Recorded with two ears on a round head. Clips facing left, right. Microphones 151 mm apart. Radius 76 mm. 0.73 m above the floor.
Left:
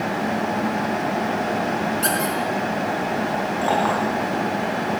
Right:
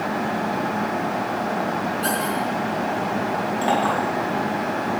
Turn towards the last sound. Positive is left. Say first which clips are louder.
# even
turn(degrees=-30)  # may be behind; listen again after turning